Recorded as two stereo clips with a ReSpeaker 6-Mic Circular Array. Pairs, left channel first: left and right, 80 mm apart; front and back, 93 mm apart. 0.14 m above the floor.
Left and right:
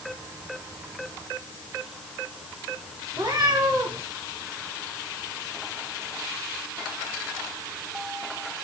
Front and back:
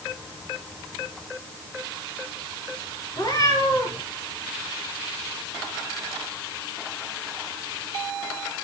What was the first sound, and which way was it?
A cat meowing, 45° right.